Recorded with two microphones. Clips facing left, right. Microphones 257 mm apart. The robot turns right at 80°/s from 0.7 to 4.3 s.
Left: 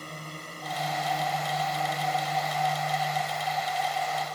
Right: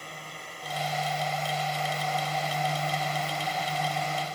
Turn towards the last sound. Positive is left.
turn(degrees=-30)